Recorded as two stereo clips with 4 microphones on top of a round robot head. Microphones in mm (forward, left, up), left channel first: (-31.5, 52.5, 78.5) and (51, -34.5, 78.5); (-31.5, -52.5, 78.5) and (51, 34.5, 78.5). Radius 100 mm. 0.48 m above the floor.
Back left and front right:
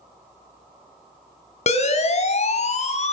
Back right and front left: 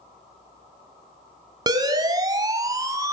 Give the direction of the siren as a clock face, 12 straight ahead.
8 o'clock.